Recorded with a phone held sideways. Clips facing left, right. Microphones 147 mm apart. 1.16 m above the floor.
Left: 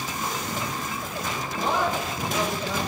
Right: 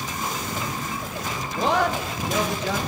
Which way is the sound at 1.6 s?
80° right.